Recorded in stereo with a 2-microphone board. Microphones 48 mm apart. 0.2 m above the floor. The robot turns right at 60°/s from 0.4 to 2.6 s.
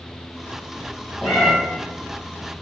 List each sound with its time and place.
1.2 s a cat meowing: 10° right (ahead or behind), 2.5 m; by 1.5 s 10° left (ahead or behind), 2.5 m